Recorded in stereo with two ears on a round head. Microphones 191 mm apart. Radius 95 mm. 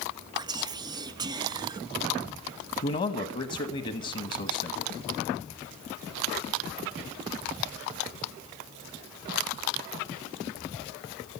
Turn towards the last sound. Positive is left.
turn(degrees=40)  # may be behind; listen again after turning